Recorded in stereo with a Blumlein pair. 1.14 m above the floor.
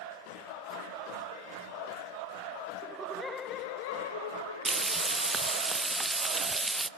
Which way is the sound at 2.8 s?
25° right.